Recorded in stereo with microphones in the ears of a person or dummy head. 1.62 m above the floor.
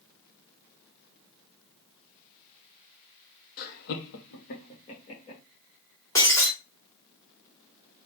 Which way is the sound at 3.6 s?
45° left (ahead or behind).